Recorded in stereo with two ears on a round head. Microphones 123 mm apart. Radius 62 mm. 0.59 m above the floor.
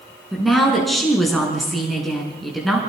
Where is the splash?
I don't hear a splash.